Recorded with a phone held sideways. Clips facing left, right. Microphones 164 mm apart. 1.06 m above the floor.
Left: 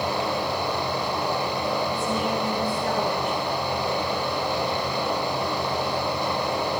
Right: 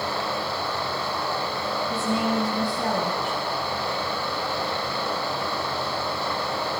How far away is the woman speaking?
About 9 m.